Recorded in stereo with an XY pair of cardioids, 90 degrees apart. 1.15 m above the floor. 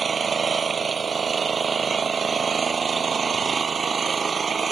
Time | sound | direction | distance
0.0 | an engine running | 40° right | ?